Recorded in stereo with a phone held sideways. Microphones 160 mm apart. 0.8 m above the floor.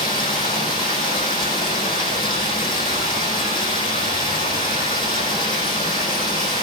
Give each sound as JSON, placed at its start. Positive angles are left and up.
{"t": 0.0, "sound": "running water", "side_deg": 30, "distance_m": 5.5}